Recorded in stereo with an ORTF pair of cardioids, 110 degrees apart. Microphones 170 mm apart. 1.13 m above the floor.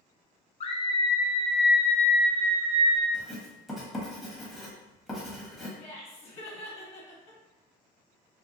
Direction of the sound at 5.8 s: 40° left.